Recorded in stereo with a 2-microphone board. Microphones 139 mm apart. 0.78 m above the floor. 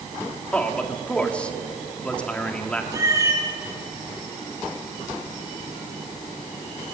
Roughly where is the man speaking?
Centre.